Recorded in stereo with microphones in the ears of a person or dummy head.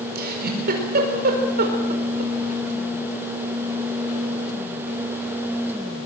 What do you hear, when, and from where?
0.1 s a giggle: 70° right (ahead or behind), 5 m